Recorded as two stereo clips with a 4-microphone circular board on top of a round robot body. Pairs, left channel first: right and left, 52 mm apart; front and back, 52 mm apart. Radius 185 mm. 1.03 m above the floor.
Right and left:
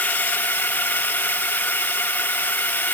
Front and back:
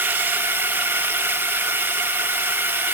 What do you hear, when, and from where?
0.0 s a drone: 140° right